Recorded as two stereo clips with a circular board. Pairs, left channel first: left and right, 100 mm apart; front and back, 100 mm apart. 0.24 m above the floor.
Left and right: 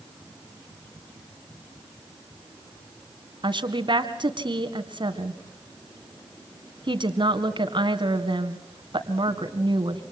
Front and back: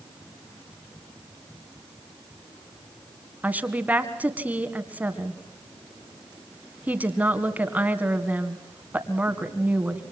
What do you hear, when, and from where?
3.4 s a woman speaking: 110° right, 2 m